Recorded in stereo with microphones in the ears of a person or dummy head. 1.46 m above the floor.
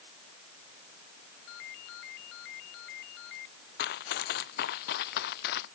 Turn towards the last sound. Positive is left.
turn(degrees=60)  # may be behind; listen again after turning